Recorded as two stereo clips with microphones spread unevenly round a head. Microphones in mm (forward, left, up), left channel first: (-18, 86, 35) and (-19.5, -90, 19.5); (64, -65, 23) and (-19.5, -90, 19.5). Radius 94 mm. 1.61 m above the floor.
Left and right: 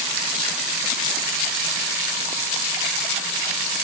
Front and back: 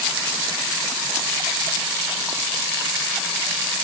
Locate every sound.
Only background noise.